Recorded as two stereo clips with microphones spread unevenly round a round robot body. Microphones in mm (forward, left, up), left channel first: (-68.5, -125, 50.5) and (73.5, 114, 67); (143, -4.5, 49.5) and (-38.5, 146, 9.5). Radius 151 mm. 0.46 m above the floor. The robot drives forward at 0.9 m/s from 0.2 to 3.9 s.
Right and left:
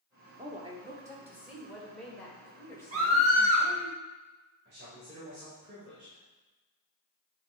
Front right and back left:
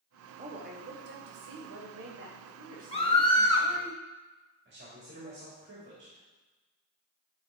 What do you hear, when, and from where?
0.4 s a woman speaking: 115° left, 1.6 m; by 3.9 s 165° left, 4 m
2.9 s a scream: 30° left, 2 m; by 3.7 s 45° left, 1.8 m
4.7 s a man speaking: 110° left, 2.5 m